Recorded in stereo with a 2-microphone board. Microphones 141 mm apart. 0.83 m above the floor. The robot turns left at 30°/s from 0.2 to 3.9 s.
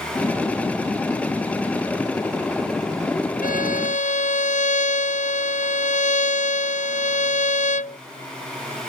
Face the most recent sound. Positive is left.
turn(degrees=60)  # may be behind; listen again after turning